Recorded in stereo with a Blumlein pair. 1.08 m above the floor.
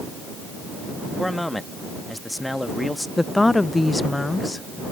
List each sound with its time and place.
1.2 s a man speaking: 5° left
3.2 s a woman speaking: 5° left